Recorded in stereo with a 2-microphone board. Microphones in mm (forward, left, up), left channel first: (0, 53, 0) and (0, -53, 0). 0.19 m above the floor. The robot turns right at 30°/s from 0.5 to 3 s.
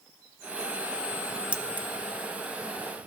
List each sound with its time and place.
1.5 s keys jangling: 10° right (ahead or behind), 1.0 m; by 1.9 s 20° right (ahead or behind), 1.0 m